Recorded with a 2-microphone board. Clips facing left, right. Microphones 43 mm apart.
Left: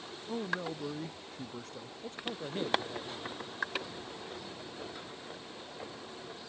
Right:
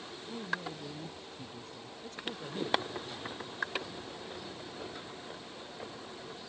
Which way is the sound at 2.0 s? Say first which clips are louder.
Left 2 dB; 35° left (ahead or behind).